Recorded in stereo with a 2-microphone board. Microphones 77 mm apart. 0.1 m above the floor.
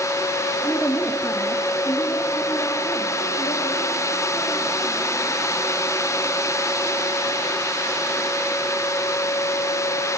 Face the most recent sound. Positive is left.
turn(degrees=50)  # may be behind; listen again after turning